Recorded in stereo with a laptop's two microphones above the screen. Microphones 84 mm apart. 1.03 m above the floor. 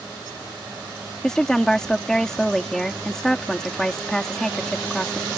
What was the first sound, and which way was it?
A woman speaking, 5° left (ahead or behind).